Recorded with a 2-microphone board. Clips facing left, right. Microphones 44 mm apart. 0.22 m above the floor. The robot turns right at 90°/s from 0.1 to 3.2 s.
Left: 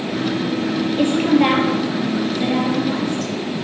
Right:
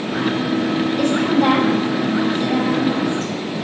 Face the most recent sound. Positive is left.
turn(degrees=-35)  # may be behind; listen again after turning